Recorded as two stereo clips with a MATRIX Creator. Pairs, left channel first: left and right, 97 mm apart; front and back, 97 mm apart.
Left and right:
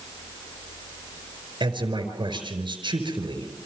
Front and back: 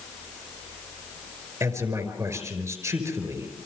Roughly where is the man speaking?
Behind right.